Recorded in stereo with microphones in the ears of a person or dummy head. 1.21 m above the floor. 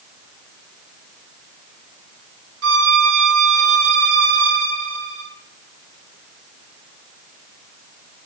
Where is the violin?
80° right, 4 m.